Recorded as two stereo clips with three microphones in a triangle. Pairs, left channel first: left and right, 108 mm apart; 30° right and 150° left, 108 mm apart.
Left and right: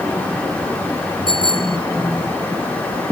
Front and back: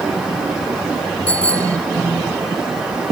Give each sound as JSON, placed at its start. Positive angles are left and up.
{"t": 1.3, "sound": "a bicycle bell", "azimuth_deg": 50}